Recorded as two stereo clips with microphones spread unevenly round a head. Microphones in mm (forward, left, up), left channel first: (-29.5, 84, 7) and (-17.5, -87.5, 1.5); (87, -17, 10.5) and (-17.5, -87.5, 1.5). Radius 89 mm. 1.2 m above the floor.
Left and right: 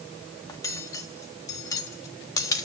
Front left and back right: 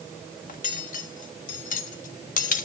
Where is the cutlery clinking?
20° left, 1.3 m.